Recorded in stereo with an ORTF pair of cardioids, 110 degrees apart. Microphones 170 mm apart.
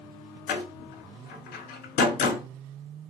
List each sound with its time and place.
0.5 s a door slam: 65° left, 1.4 m